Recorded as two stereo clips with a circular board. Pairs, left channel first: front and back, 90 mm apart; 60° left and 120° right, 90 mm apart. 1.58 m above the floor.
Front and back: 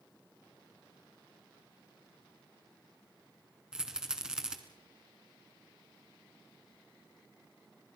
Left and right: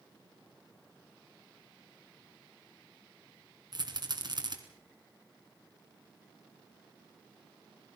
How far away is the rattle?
About 2.5 m.